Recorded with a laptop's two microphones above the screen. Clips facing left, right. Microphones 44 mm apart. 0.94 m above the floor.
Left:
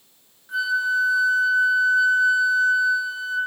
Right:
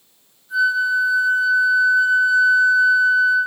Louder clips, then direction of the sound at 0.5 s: Right 4 dB; 50° left (ahead or behind).